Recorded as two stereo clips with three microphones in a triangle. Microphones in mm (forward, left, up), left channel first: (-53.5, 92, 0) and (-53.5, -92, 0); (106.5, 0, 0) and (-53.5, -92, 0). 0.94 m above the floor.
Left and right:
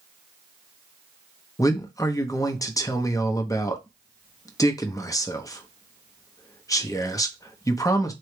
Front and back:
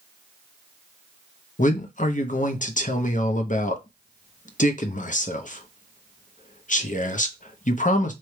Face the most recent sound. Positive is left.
turn(degrees=30)